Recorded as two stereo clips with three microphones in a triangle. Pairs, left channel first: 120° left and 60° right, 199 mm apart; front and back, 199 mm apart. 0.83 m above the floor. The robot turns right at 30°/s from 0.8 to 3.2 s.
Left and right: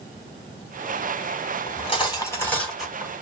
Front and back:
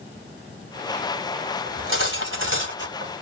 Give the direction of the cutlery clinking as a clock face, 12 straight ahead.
6 o'clock.